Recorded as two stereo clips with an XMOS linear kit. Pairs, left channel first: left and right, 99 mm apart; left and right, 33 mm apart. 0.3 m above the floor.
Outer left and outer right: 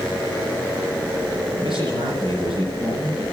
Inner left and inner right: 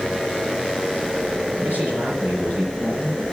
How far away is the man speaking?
About 6 m.